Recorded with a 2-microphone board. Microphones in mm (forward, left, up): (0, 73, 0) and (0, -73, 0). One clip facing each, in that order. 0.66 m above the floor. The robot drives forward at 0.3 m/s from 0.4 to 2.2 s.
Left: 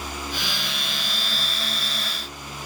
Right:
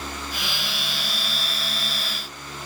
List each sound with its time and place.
Only background noise.